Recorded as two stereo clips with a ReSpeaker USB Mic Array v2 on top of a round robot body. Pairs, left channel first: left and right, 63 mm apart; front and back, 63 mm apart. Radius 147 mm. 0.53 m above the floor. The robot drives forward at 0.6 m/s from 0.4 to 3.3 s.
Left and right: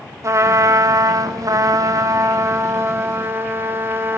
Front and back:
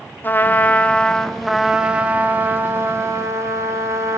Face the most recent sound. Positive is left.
turn(degrees=-140)